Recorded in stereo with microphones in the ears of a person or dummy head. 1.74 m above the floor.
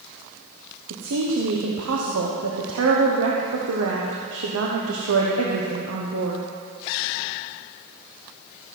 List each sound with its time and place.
0.9 s a woman speaking: 75° right (ahead or behind), 1.2 m